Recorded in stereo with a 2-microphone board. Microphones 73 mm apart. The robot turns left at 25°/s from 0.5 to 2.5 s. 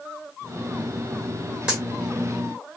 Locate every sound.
1.7 s a dropped coin: 10° right (ahead or behind), 1.5 m